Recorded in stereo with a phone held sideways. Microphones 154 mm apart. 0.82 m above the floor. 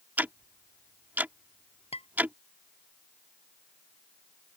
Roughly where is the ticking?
Centre.